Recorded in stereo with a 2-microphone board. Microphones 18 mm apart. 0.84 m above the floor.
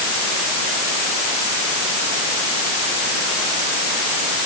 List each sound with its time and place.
Only background noise.